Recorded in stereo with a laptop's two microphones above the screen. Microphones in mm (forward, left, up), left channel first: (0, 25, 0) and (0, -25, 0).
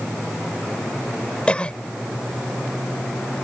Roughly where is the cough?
Left.